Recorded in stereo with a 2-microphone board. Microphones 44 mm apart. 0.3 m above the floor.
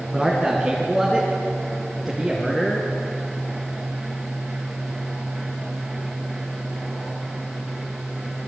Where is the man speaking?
5° right (ahead or behind), 4 m; by 2.9 s 5° left (ahead or behind), 5.5 m.